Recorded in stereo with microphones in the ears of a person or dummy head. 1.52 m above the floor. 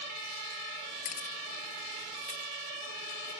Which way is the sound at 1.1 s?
45° left (ahead or behind).